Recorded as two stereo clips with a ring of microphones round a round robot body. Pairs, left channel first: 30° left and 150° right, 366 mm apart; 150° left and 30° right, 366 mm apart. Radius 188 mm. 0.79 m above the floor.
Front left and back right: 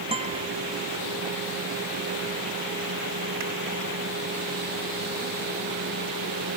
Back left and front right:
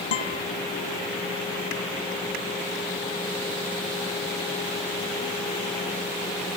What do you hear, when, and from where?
0.1 s a guitar: 135° left